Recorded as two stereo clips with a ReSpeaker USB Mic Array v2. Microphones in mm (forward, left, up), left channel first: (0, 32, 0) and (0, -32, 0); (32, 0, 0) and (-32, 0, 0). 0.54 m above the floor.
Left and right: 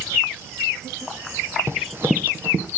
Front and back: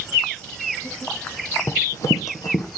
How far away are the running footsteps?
About 1.3 m.